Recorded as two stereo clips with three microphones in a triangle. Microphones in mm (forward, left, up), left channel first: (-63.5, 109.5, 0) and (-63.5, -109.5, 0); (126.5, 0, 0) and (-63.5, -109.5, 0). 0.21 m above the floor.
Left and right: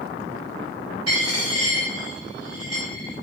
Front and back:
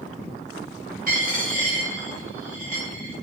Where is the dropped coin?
95° right, 2.5 m.